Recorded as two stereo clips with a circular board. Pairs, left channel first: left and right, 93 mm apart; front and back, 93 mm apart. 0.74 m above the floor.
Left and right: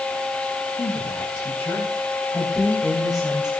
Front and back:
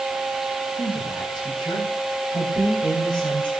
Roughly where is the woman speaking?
Ahead left.